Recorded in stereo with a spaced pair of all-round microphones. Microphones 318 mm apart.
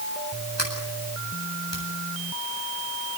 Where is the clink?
I don't hear a clink.